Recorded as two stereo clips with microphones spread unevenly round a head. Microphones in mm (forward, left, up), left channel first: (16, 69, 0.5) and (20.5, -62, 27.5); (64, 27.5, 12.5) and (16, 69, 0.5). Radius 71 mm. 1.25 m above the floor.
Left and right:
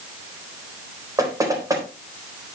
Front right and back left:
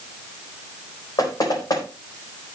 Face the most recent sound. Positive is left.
turn(degrees=-25)